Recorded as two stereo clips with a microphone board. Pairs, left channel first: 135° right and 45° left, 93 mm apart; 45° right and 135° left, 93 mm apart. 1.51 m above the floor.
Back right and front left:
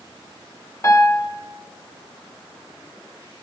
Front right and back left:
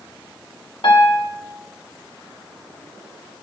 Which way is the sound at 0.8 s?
80° right.